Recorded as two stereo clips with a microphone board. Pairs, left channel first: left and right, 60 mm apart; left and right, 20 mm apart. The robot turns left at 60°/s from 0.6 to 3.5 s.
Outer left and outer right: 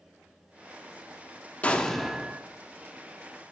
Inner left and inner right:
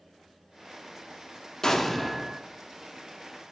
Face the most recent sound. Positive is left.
turn(degrees=-85)